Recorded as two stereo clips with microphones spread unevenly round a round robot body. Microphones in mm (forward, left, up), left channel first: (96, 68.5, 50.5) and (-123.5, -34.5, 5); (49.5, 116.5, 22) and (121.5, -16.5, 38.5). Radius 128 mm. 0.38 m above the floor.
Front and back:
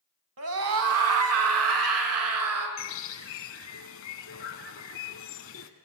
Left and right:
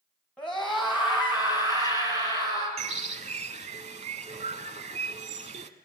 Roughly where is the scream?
Behind.